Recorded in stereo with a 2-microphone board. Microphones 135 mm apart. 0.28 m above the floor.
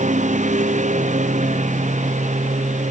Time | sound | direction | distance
0.0 | a lawn mower | 65° right (ahead or behind) | ?